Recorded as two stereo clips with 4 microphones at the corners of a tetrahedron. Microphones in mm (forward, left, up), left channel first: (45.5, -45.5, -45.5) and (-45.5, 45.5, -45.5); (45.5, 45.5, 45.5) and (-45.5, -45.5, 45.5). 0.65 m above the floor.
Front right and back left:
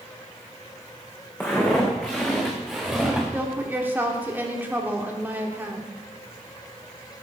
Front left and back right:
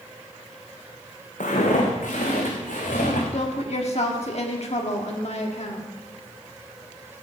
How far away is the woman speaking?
About 1.5 m.